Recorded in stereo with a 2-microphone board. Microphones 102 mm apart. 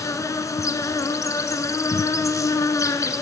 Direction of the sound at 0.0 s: 30° left (ahead or behind).